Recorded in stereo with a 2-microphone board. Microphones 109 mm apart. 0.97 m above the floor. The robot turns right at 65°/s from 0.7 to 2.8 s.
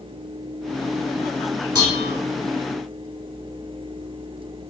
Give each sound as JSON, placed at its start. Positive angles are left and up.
{"t": 1.8, "sound": "dishes clattering", "side_deg": 40, "distance_m": 1.8}